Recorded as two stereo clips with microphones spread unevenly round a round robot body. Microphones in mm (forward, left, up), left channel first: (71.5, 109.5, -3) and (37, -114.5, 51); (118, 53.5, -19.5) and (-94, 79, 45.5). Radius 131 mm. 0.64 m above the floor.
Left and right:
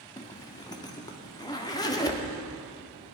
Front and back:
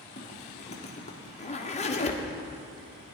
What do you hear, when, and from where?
0.2 s a zipper: 25° left, 1.5 m